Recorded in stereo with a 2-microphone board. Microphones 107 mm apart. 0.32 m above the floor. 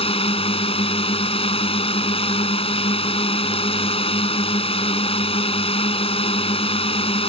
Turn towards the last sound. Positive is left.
turn(degrees=60)  # may be behind; listen again after turning